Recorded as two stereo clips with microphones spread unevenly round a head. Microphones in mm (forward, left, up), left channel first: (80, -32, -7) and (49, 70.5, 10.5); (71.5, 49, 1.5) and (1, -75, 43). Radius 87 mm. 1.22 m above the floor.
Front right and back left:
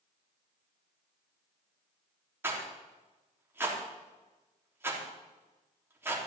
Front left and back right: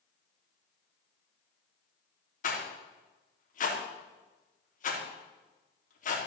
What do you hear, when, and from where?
2.4 s a rattle: 35° left, 3.5 m